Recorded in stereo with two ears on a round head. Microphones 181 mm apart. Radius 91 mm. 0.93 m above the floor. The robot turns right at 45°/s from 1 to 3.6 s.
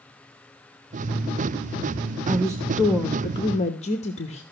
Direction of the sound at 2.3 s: 25° right.